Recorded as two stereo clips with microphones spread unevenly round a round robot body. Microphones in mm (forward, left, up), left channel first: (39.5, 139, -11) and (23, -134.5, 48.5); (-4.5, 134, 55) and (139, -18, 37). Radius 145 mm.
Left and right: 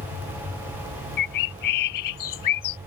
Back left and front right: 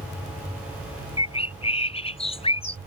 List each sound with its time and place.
1.2 s a bird: 70° left